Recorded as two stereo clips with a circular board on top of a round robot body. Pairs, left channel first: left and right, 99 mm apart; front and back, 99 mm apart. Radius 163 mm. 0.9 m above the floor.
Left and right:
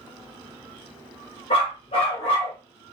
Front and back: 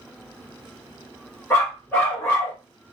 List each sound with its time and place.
1.5 s a dog barking: 70° left, 1.9 m